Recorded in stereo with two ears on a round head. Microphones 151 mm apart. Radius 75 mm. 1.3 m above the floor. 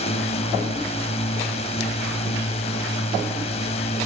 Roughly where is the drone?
Left.